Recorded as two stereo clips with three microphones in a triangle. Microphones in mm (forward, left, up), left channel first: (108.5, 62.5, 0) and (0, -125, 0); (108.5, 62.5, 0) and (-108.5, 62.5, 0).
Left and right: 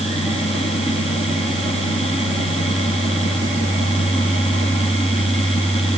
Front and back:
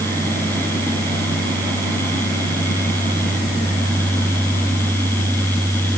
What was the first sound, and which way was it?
Only background noise.